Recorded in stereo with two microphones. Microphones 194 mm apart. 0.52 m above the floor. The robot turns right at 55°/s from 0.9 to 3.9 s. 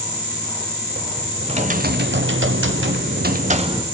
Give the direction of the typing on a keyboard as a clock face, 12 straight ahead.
5 o'clock.